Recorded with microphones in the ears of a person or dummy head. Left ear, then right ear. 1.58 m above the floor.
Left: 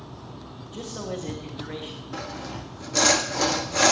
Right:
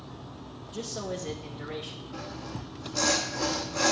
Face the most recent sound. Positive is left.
turn(degrees=35)  # may be behind; listen again after turning